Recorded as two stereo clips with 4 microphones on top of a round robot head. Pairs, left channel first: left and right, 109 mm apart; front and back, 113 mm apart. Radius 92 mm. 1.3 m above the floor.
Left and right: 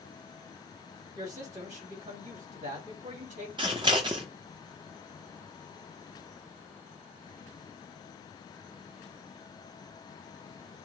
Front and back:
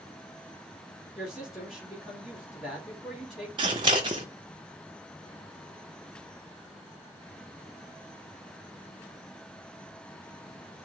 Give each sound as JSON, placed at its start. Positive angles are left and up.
{"t": 1.1, "sound": "a woman speaking", "azimuth_deg": -95, "distance_m": 2.0}
{"t": 3.6, "sound": "scissors", "azimuth_deg": -135, "distance_m": 0.5}